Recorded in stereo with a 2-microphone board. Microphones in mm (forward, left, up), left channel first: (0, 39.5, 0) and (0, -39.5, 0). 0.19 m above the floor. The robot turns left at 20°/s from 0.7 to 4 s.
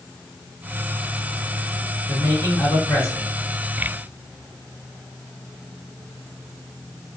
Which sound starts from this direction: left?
A man speaking, at 2.1 s.